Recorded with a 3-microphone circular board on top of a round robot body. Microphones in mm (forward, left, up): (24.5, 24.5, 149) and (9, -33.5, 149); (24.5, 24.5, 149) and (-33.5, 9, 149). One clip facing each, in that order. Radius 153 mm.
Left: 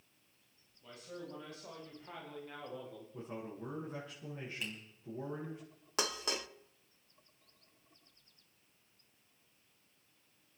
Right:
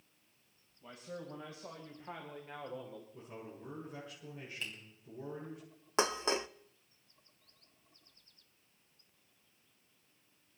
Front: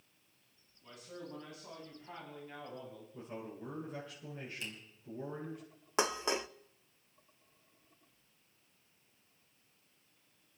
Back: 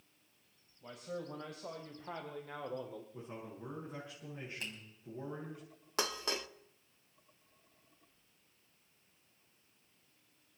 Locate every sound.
0.8 s a man speaking: 170° right, 3.5 m; by 3.0 s 175° left, 1.8 m
3.1 s a man speaking: 125° left, 6.5 m
4.6 s a finger snap: 155° left, 4.5 m
6.0 s dishes clattering: 50° right, 0.6 m